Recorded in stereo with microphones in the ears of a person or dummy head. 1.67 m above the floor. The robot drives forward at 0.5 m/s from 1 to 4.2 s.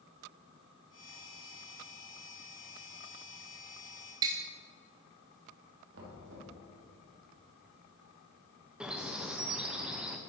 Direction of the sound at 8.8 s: 5° right (ahead or behind).